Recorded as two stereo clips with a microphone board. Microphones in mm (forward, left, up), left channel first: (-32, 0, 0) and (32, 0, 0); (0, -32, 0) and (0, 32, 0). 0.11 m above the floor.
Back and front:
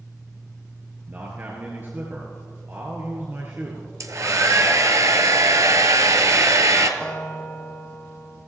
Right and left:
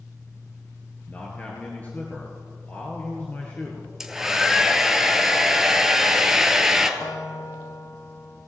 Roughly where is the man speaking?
Ahead right.